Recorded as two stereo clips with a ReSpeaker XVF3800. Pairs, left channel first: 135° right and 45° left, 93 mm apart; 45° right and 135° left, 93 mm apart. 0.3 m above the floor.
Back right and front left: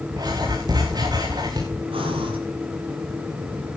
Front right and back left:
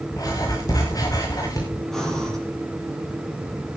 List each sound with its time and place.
0.1 s writing: 5° left, 4.5 m
1.9 s breathing: 40° left, 6.5 m